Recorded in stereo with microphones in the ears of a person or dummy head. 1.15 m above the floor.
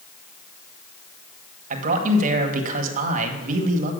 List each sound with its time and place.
1.7 s a man speaking: 40° right (ahead or behind), 1.3 m